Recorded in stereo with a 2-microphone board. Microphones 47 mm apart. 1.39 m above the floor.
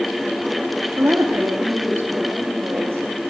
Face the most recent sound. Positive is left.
turn(degrees=-65)  # may be behind; listen again after turning